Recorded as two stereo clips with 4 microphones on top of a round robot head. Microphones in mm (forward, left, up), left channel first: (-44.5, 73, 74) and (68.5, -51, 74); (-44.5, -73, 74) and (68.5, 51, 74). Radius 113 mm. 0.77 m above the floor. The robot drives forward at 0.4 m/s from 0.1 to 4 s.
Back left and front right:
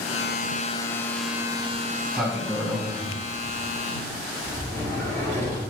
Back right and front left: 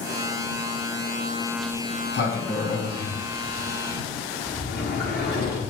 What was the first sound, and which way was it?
A sliding door, 130° right.